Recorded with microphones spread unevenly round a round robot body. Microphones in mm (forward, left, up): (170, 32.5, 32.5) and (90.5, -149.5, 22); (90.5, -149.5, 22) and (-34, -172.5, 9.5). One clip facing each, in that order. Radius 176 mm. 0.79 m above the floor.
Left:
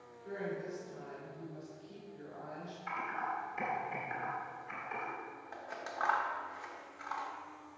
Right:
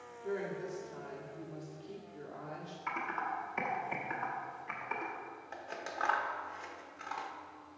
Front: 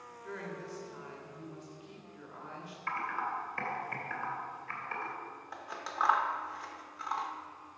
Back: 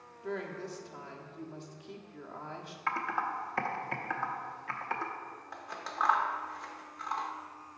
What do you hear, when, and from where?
0.2 s a woman speaking: 160° right, 1.3 m
2.9 s typing on a keyboard: 160° right, 0.9 m
5.5 s scissors: 85° right, 0.9 m